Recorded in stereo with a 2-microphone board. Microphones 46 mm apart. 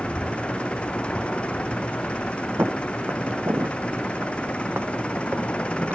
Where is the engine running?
25° left (ahead or behind).